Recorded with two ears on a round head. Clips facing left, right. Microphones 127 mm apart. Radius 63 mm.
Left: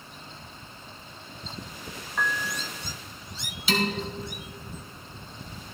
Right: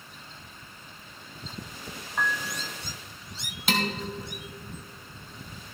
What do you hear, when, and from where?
2.2 s a piano: 5° right (ahead or behind), 1.0 m
3.7 s dishes clattering: 45° right (ahead or behind), 2 m